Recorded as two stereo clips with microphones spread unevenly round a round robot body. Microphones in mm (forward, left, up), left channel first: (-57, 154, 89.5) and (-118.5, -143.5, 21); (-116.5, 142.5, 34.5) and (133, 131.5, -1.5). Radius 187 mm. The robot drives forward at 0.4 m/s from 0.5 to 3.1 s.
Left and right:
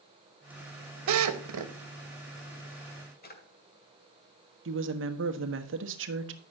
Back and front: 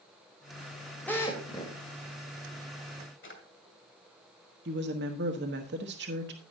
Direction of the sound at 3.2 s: 135° left.